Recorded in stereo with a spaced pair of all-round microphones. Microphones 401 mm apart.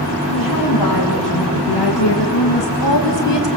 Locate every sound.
0.3 s a woman speaking: 55° left (ahead or behind), 3.5 m; by 3.5 s 75° left (ahead or behind), 1.7 m